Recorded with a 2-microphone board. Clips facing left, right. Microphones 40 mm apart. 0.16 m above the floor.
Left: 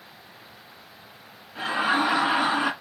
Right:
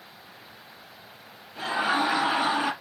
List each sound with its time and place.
1.6 s laughter: 30° left (ahead or behind), 1.6 m